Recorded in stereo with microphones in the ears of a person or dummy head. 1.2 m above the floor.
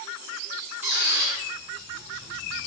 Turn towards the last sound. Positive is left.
turn(degrees=-5)  # may be behind; listen again after turning